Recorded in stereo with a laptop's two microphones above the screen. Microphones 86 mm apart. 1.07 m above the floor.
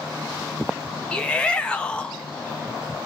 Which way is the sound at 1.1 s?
15° left (ahead or behind).